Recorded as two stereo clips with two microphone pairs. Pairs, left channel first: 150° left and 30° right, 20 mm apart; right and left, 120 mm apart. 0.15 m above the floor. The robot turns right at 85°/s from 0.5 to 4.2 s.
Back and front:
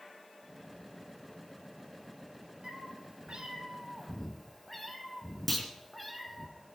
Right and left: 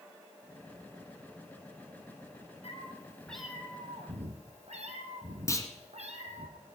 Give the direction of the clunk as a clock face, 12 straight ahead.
4 o'clock.